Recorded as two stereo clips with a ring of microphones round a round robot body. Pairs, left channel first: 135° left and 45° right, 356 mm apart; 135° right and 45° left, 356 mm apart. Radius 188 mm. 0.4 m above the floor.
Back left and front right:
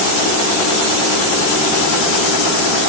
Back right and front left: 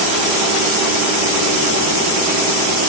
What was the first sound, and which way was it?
Only background noise.